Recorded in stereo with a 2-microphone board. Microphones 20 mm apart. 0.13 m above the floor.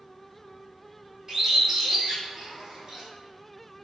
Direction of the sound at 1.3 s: 15° right (ahead or behind).